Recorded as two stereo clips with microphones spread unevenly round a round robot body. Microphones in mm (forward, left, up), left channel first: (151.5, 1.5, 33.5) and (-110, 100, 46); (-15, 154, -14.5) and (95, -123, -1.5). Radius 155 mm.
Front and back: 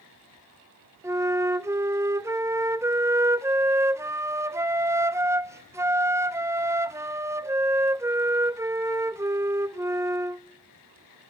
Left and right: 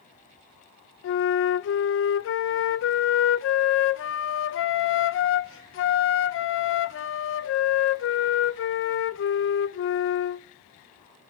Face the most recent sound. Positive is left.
turn(degrees=80)